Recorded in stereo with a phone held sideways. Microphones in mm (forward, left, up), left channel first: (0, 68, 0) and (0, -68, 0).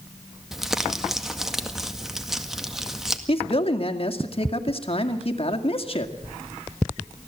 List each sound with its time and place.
0.5 s crumpling: 5° right (ahead or behind), 1.8 m
3.3 s a man speaking: 45° left (ahead or behind), 2 m